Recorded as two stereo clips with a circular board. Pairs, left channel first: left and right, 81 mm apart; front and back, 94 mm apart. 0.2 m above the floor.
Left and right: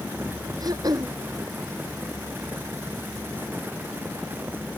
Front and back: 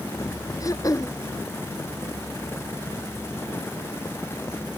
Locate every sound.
0.6 s throat clearing: 50° right